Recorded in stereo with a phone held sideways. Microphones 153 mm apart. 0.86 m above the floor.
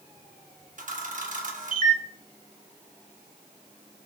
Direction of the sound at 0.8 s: 55° right (ahead or behind).